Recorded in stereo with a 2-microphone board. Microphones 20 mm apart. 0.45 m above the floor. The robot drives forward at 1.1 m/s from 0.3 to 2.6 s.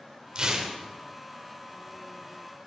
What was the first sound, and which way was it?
Tearing paper, 35° right (ahead or behind).